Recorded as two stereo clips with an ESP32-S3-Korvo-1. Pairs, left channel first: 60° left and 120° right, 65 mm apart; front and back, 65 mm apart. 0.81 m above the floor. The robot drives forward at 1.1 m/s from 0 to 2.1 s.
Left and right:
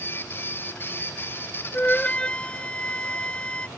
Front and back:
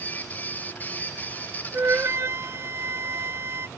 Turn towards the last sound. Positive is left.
turn(degrees=135)